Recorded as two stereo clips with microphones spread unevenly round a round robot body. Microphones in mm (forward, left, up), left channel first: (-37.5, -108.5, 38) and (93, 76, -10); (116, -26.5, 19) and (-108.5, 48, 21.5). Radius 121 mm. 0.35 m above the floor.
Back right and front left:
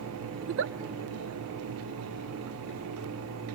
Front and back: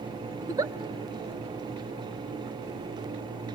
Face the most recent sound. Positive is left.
turn(degrees=85)